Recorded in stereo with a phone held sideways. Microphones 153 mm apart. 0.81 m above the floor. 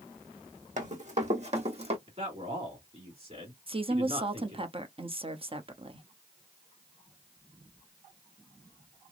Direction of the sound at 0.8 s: 50° right (ahead or behind).